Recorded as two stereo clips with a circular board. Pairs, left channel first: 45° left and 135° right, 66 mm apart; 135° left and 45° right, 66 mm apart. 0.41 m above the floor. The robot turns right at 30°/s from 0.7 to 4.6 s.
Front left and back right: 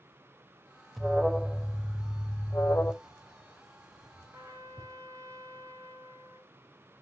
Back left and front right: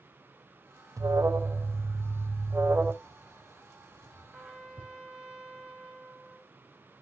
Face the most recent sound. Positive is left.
turn(degrees=-125)